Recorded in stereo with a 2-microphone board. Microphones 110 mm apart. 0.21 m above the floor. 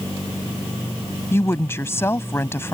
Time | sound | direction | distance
1.3 | a woman speaking | 25° left (ahead or behind) | ?